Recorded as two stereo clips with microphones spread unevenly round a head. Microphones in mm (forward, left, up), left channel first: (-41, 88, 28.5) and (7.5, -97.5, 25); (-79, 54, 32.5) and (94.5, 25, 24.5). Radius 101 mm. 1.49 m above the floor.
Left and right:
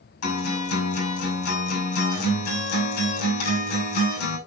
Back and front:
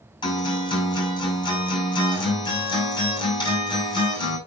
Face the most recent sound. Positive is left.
turn(degrees=105)